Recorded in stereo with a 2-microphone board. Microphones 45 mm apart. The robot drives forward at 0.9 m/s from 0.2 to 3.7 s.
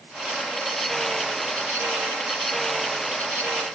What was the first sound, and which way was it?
Only background noise.